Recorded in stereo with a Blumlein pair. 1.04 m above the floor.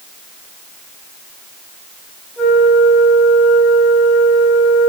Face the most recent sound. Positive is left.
turn(degrees=25)